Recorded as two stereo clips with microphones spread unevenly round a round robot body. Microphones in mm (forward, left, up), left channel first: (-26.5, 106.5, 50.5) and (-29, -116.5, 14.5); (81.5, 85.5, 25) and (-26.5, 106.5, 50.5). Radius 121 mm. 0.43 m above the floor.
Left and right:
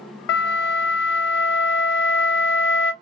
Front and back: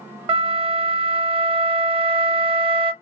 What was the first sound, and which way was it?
A flute, 130° left.